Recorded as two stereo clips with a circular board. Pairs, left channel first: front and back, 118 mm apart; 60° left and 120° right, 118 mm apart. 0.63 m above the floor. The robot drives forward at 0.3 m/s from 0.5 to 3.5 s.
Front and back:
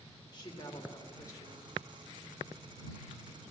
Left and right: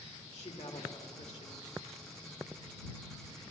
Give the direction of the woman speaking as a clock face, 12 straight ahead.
10 o'clock.